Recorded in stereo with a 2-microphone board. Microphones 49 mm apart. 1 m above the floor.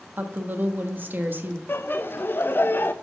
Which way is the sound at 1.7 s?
45° left (ahead or behind).